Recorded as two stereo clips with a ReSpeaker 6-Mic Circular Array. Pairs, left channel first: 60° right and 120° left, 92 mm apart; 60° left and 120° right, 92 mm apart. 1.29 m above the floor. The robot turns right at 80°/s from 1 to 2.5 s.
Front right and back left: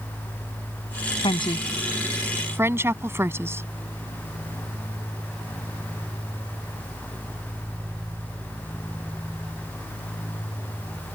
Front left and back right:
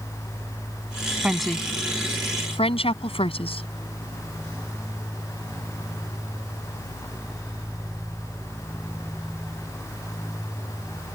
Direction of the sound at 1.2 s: 45° right.